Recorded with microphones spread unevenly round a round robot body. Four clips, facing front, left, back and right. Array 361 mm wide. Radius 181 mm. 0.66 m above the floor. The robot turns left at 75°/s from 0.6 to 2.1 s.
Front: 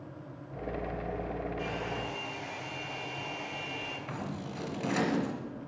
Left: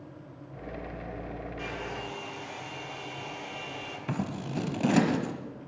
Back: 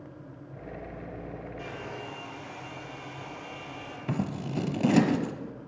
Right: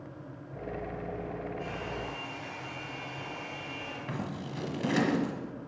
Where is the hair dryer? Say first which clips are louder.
Even, front 3 dB; 95° left, 10 m; by 4.0 s 55° left, 10 m.